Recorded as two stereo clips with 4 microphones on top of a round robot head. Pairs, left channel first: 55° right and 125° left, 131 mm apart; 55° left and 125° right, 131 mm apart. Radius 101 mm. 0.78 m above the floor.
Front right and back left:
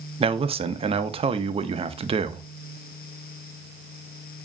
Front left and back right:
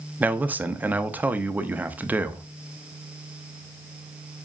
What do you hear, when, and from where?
0.2 s a man speaking: 160° left, 0.6 m